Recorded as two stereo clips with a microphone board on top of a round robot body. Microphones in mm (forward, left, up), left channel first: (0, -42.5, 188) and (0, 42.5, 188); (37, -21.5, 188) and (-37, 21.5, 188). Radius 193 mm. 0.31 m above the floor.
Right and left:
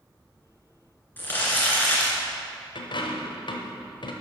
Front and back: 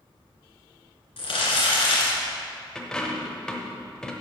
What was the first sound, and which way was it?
Crumpling, 20° right.